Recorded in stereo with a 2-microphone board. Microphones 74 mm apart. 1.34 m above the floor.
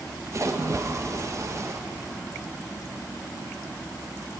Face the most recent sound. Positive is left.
turn(degrees=-45)  # may be behind; listen again after turning